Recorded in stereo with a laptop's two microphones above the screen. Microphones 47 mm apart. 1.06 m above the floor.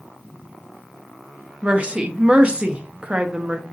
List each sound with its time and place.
1.6 s a woman speaking: 25° right (ahead or behind), 0.6 m